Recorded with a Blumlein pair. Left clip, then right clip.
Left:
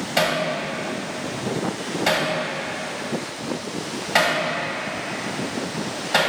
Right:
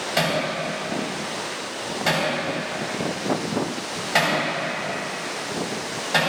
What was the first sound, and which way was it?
Hammering, straight ahead.